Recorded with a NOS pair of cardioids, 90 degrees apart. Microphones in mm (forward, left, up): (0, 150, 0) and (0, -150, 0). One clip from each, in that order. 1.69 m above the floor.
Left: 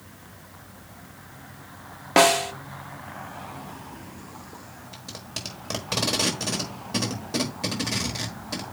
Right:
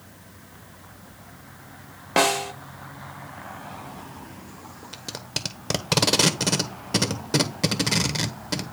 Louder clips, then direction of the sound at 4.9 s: Right 5 dB; 40° right.